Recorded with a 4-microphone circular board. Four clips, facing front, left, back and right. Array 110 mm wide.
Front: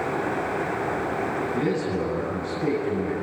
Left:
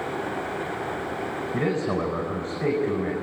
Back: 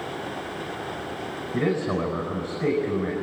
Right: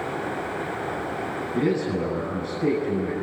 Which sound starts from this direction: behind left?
A man speaking, at 1.5 s.